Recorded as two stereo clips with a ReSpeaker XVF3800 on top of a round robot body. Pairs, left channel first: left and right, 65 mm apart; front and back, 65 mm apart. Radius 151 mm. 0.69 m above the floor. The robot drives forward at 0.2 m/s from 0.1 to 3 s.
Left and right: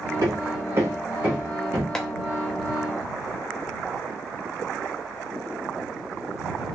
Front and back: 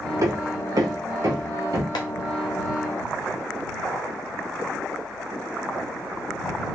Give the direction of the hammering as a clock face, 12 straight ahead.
5 o'clock.